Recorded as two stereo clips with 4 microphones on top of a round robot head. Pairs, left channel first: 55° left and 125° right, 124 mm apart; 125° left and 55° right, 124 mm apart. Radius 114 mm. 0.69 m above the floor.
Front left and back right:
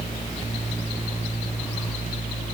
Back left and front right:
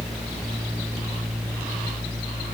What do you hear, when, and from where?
Only background noise.